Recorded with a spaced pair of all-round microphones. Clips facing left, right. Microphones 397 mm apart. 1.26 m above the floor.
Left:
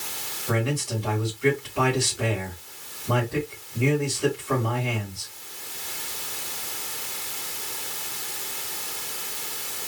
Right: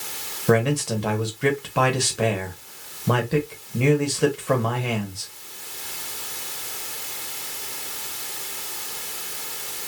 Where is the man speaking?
80° right, 1.8 m.